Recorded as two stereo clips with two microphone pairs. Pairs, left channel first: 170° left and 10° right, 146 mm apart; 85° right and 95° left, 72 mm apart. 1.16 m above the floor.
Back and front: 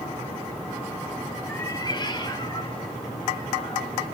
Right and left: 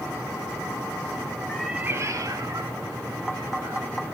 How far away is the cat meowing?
About 0.6 m.